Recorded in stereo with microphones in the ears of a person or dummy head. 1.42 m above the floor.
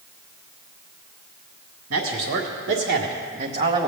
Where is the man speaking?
70° right (ahead or behind), 2.0 m; by 3.9 s 15° right (ahead or behind), 1.1 m.